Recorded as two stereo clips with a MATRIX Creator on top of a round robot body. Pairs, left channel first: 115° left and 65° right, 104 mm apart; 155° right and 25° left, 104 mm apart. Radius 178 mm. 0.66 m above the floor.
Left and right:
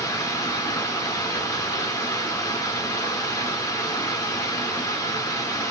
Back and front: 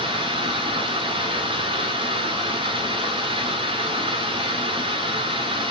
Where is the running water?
55° left, 1.6 m.